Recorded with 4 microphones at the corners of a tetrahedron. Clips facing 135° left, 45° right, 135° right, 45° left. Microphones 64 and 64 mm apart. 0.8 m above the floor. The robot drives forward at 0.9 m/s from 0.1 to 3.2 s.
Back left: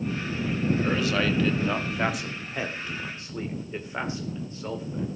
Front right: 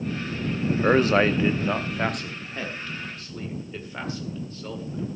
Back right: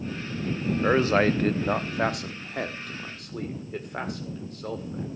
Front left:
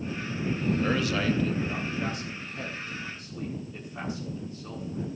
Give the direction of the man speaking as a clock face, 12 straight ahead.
2 o'clock.